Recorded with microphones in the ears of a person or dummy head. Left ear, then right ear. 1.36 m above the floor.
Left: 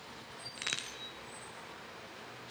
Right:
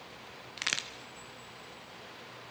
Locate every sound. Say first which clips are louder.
0.6 s a crack: right 4 dB; 20° right (ahead or behind), 0.9 m